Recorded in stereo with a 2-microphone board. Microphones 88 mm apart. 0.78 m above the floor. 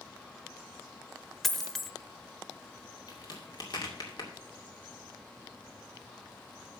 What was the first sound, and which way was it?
A dropped coin, 5° left (ahead or behind).